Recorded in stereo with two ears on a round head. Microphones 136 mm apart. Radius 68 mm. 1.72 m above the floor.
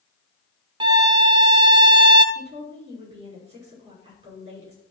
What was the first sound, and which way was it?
A violin, 30° right (ahead or behind).